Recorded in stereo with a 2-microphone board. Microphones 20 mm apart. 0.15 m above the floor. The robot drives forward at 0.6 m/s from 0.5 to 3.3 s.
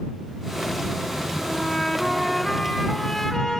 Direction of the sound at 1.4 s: 10° left (ahead or behind).